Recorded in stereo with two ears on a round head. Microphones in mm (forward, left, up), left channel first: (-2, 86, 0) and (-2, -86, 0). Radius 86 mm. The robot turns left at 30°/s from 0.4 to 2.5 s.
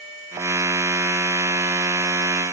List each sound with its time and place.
Only background noise.